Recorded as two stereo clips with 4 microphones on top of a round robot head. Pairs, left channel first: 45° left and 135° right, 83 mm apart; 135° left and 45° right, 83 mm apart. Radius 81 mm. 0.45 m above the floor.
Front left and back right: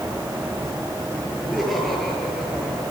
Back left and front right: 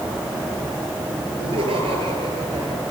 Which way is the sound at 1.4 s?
40° right.